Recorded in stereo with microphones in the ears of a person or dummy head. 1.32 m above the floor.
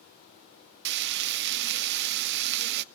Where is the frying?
60° right (ahead or behind), 0.5 m.